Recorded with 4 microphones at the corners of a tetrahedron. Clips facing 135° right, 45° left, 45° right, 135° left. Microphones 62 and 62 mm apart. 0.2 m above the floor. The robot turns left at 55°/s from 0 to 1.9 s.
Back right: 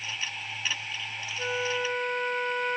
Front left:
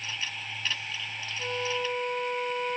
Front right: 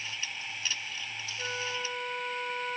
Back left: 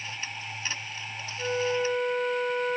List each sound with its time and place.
1.4 s a flute: 140° right, 0.5 m; by 2.8 s 170° right, 0.5 m